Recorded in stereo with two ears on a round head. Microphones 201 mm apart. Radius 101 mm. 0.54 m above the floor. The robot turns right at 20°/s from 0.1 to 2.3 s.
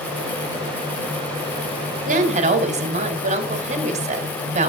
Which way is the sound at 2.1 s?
35° right (ahead or behind).